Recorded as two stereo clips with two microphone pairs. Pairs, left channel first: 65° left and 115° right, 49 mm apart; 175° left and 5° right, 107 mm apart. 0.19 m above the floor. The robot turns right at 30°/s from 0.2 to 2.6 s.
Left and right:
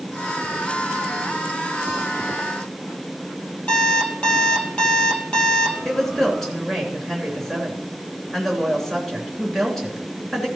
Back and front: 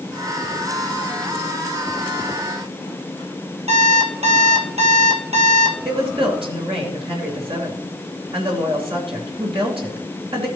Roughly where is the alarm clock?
Ahead.